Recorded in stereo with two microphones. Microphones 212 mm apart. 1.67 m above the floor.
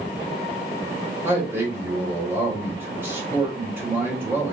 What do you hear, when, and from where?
1.2 s a man speaking: 10° right (ahead or behind), 2.5 m